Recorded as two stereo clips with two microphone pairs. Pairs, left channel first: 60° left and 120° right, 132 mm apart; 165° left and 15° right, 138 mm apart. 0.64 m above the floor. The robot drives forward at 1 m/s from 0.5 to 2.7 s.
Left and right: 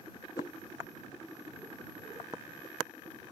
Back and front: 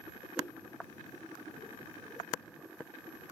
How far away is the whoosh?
About 1.2 m.